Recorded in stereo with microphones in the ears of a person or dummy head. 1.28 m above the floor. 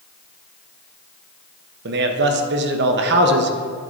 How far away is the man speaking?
About 0.9 m.